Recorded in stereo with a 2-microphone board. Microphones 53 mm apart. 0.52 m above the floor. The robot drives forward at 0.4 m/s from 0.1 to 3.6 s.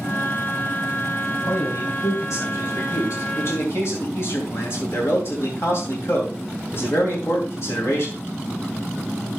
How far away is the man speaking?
About 2.5 m.